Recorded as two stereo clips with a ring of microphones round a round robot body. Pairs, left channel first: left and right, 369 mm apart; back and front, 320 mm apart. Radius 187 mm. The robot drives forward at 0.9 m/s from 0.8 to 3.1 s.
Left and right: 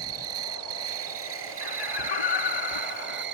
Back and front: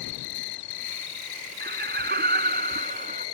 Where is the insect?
145° right; by 3.4 s 155° right.